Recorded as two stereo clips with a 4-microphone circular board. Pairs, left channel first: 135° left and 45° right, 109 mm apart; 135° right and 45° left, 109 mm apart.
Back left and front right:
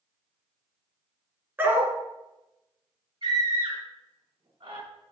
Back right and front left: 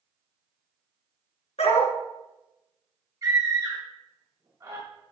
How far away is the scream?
About 2 m.